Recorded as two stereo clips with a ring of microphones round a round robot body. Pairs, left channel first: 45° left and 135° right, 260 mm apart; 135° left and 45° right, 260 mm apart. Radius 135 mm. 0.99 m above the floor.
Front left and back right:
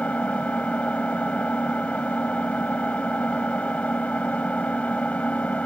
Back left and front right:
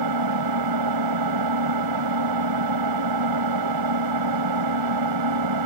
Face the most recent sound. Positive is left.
turn(degrees=-40)